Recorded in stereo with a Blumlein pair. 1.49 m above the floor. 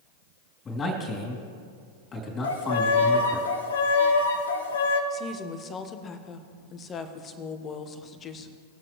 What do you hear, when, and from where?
0.7 s a man speaking: 20° left, 3 m
2.4 s a violin: 65° left, 1.3 m
5.1 s a woman speaking: 25° left, 1.2 m